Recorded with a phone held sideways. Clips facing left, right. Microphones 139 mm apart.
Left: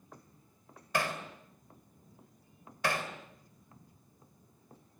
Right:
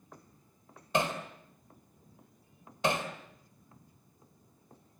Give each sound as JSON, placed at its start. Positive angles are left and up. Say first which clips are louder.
{"t": 0.9, "sound": "hammering", "louder": "right 3 dB", "side_deg": -20, "distance_m": 3.5}